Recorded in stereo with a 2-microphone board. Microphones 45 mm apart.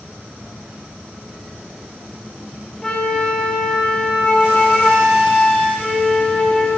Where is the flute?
10° left (ahead or behind), 1.3 m.